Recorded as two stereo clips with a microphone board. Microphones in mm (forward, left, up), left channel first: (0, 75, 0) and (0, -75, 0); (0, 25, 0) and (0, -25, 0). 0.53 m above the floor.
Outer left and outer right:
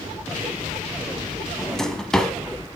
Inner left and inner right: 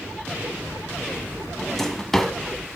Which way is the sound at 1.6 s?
5° left (ahead or behind).